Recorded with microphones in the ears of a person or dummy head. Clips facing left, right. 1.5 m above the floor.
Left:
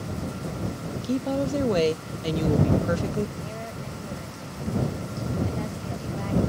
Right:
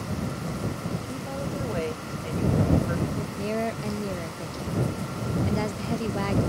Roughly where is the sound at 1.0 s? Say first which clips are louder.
Left 8 dB; left.